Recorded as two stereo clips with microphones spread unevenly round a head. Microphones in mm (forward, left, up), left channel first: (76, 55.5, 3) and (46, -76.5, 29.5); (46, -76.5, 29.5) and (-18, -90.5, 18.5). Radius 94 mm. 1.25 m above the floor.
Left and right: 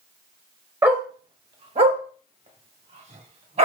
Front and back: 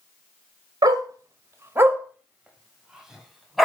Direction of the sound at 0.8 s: 165° right.